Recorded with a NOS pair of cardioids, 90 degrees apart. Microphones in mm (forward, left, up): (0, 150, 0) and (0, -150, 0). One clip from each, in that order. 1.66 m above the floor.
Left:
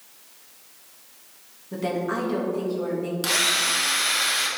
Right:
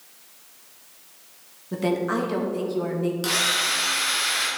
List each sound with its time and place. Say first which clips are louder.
1.7 s a woman speaking: right 2 dB; 25° right, 1.9 m
3.2 s a drill: left 1 dB; 15° left, 2.5 m